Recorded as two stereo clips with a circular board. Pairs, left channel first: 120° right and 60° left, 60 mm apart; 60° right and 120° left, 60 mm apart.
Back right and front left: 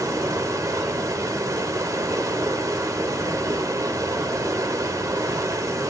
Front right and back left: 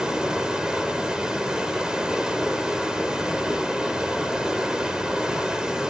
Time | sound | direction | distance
0.0 | running water | 45° left | 1.2 m